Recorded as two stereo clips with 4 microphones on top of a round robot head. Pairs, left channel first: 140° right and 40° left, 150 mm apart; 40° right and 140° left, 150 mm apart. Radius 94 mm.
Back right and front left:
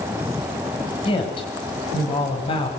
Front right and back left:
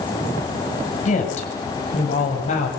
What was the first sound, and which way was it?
A woman speaking, 85° right.